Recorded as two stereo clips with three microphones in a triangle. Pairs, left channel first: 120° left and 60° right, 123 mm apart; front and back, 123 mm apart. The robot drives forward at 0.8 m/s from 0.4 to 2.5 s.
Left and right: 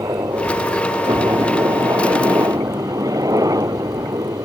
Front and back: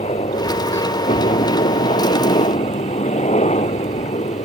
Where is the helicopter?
Straight ahead.